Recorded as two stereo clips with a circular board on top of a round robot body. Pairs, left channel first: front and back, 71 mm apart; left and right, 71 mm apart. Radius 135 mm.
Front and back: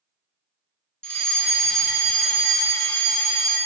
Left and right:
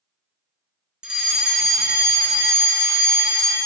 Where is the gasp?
No gasp in this recording.